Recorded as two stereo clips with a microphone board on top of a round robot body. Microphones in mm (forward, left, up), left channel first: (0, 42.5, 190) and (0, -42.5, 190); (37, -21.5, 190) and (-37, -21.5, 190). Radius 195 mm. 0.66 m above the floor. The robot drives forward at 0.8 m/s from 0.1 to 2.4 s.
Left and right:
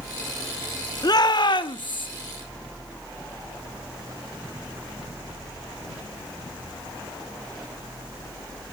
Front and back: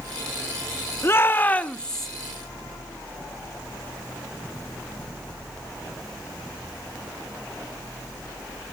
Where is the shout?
55° left, 1.7 m; by 2.1 s 85° left, 1.5 m.